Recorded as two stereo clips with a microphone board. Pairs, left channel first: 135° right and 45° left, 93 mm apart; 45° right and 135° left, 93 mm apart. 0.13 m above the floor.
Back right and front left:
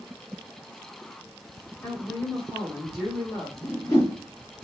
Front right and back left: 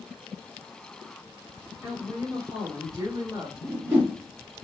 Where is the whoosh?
170° right, 1.4 m.